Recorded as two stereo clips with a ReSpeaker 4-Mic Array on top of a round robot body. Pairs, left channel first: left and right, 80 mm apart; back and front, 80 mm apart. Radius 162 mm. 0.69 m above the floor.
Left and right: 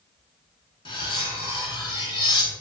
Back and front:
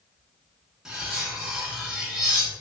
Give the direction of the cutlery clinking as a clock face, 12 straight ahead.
9 o'clock.